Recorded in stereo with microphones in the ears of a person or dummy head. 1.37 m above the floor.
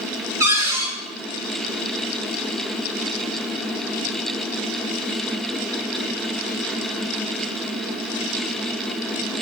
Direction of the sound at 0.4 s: 15° right (ahead or behind).